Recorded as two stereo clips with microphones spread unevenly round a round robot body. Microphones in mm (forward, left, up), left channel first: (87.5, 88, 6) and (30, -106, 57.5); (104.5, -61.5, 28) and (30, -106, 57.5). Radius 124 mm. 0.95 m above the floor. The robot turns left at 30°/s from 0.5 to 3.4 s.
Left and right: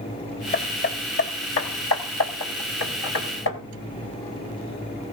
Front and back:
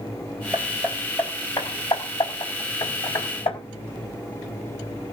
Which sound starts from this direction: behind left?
Hammering, at 0.5 s.